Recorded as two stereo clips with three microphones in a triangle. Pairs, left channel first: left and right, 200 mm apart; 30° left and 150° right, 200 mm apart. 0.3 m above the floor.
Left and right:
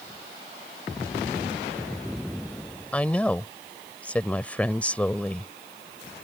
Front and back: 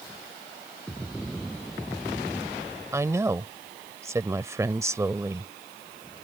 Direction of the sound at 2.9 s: 160° left.